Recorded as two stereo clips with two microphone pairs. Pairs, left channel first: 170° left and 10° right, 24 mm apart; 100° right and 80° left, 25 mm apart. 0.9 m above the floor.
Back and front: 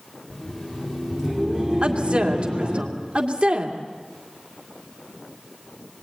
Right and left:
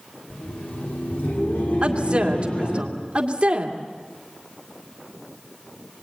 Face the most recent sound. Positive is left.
turn(degrees=30)